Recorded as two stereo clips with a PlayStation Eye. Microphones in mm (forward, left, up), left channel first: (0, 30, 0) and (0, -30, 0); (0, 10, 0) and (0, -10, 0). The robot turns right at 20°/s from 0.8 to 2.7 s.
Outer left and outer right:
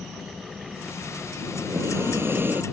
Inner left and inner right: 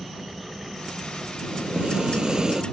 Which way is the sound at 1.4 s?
50° right (ahead or behind).